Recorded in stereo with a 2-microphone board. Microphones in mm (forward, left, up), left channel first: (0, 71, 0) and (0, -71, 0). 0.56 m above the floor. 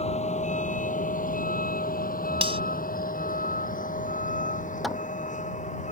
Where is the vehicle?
50° left (ahead or behind); by 5.9 s 55° left (ahead or behind).